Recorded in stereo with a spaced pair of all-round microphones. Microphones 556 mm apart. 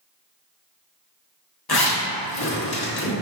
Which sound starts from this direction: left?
A zipper, at 1.7 s.